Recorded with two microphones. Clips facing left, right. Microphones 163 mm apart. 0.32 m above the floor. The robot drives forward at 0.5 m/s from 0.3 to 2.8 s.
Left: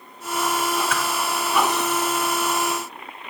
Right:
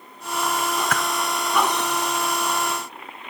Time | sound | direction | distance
0.9 | a whoosh | 55° right (ahead or behind) | 0.5 m